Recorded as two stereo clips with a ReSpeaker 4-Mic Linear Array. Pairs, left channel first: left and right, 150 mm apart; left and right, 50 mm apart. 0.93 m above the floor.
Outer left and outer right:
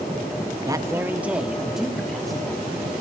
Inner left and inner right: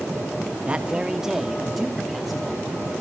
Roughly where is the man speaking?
Right.